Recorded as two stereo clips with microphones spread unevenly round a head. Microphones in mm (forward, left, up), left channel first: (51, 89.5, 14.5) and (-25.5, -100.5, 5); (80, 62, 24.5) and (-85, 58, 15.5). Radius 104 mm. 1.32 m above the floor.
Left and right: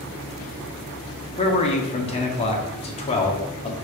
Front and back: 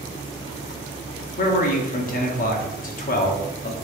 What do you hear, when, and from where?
1.4 s a man speaking: 15° left, 0.6 m